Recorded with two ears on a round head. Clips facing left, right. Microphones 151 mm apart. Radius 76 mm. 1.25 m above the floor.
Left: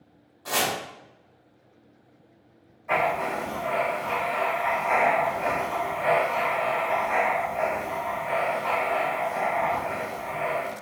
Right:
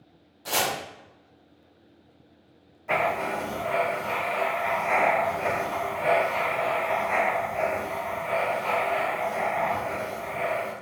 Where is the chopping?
30° right (ahead or behind), 1.2 m.